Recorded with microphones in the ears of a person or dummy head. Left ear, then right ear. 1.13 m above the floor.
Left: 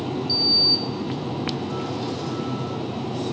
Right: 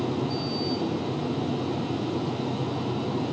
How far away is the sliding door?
About 0.6 m.